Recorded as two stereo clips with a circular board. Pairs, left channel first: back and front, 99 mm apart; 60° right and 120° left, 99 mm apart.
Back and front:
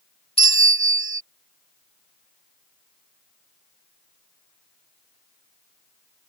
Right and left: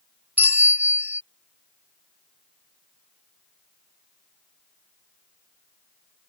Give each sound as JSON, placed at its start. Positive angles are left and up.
{"t": 0.4, "sound": "a bell", "azimuth_deg": -165}